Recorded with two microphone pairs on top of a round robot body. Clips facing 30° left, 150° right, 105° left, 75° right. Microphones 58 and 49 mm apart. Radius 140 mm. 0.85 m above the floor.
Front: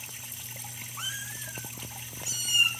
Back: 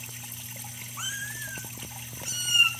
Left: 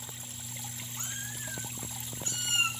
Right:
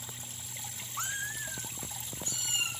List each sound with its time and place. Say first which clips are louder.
1.0 s a cat meowing: back 3 dB, right 7 dB; 65° right, 0.8 m; by 2.7 s 155° left, 2 m